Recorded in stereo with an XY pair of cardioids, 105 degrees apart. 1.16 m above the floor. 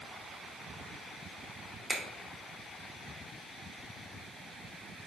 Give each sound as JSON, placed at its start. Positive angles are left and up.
{"t": 1.9, "sound": "a finger snap", "azimuth_deg": -30, "distance_m": 0.7}